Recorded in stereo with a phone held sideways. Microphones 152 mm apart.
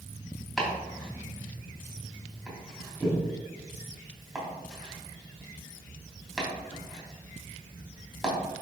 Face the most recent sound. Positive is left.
turn(degrees=0)  # may be behind; listen again after turning